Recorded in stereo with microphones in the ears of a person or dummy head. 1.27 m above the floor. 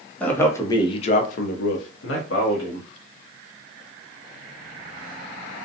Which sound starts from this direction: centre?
A man speaking, at 0.2 s.